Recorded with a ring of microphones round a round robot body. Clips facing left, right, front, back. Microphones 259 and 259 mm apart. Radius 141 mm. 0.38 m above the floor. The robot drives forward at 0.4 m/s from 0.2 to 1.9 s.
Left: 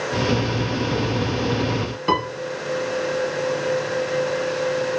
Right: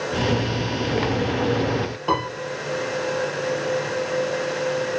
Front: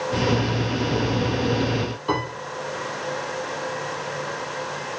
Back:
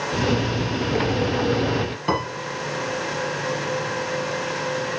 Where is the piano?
150° left, 4 m.